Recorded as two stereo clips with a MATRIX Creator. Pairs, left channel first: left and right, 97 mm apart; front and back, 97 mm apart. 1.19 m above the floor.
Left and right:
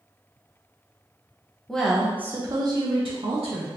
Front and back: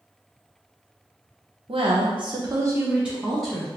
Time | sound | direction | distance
1.7 | a woman speaking | 175° left | 0.9 m